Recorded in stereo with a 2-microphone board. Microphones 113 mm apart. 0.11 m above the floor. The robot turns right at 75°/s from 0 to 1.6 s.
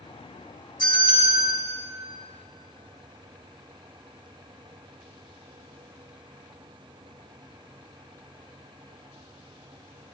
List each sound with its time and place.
0.8 s a bell: 45° left, 5.5 m; by 1.6 s 100° left, 5.5 m